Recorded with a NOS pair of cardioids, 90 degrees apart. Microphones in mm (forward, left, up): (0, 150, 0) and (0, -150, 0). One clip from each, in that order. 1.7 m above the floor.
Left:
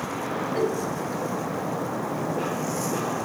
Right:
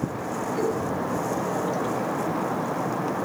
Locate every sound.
0.6 s a giggle: 70° left, 7 m